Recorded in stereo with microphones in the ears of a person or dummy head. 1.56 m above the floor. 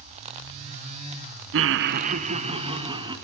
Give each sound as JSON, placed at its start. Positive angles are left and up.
{"t": 1.5, "sound": "laughter", "side_deg": -60, "distance_m": 0.6}